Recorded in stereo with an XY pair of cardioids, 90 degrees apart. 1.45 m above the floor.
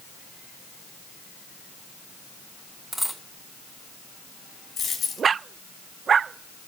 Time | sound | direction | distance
2.9 | a dropped coin | 5° right | 3.5 m
4.8 | a dropped coin | 70° left | 4.5 m